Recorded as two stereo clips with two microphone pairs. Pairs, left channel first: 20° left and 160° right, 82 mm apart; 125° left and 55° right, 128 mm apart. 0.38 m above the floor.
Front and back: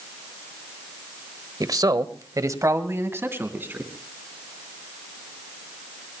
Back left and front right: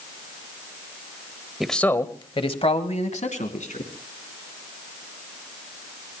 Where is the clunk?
I don't hear a clunk.